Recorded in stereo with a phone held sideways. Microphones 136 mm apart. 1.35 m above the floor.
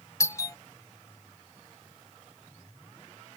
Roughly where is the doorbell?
Left.